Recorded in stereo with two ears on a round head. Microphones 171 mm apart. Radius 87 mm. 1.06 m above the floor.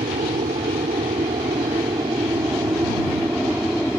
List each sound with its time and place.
0.0 s an aircraft: 30° right (ahead or behind); by 4.0 s centre (ahead or behind)